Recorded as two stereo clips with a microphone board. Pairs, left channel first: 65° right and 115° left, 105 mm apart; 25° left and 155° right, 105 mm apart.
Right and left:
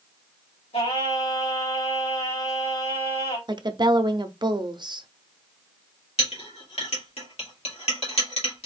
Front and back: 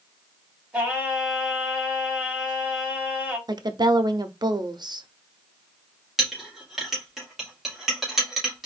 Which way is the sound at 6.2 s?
70° right.